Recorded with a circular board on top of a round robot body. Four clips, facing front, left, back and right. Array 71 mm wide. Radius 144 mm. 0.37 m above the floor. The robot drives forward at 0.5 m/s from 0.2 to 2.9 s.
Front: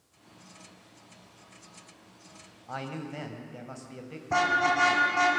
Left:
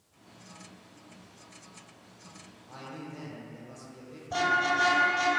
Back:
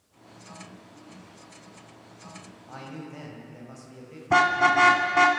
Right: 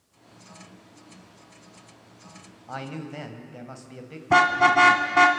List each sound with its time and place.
2.7 s a man speaking: 60° right, 3.5 m
4.3 s a car horn: 115° right, 2.5 m